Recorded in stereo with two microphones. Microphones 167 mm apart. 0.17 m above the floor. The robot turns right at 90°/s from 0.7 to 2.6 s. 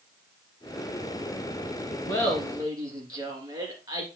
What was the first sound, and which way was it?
Laughter, 155° left.